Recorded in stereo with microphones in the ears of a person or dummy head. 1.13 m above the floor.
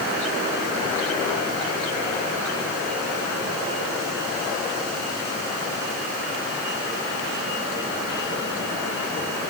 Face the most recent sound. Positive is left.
No sound to turn to.